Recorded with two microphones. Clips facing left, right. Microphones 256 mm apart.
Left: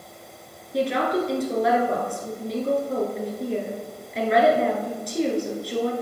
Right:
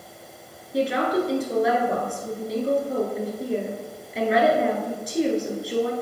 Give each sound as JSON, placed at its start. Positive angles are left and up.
{"t": 0.7, "sound": "a woman speaking", "side_deg": 0, "distance_m": 1.1}